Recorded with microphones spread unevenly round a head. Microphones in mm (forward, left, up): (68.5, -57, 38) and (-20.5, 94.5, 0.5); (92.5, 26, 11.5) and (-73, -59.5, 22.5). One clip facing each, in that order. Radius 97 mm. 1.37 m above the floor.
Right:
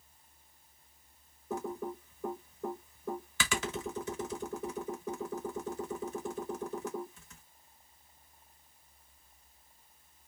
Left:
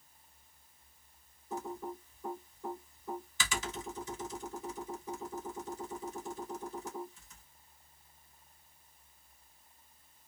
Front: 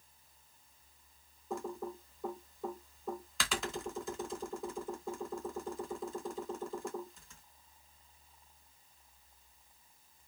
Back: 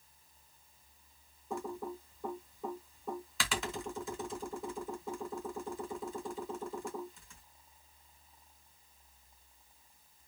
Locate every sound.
1.5 s typing on a keyboard: 65° right, 0.9 m